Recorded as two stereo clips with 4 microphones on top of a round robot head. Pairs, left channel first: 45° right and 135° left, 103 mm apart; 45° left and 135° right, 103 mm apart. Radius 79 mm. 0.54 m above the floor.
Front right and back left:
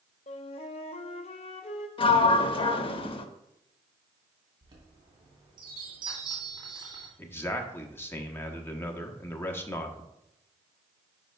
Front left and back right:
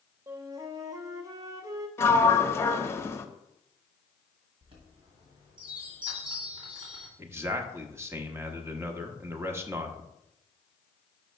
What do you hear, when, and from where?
0.3 s a flute: 75° right, 0.6 m
2.0 s a sliding door: 15° right, 0.7 m
4.6 s a chime: 175° right, 2 m
7.2 s a man speaking: 95° right, 1.0 m